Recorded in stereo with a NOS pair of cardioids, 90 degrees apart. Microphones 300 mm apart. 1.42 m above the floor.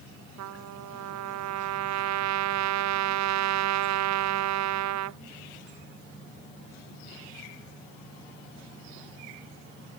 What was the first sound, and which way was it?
A trumpet, 65° right.